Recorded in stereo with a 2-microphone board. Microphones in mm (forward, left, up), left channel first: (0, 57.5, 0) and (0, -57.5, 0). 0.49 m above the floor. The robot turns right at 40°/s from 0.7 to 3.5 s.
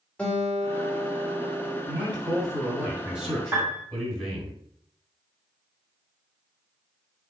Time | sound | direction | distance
0.2 | a guitar | 165° left | 1.8 m
1.9 | a man speaking | 60° right | 2.5 m
3.5 | a piano | 25° right (ahead or behind) | 2.5 m